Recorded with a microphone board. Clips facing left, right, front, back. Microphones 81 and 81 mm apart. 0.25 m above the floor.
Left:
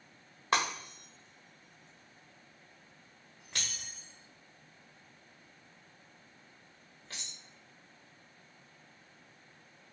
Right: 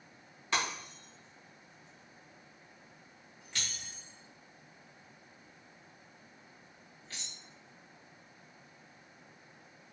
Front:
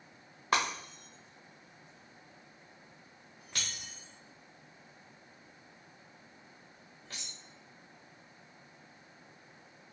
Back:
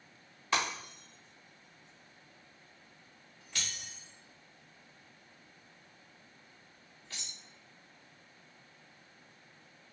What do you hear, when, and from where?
0.5 s breaking glass: 40° left, 1.5 m